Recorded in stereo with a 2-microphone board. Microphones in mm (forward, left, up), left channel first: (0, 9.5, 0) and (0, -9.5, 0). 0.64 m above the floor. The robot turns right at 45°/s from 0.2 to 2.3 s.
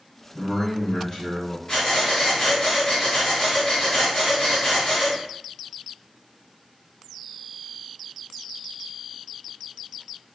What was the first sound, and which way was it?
A man speaking, centre (ahead or behind).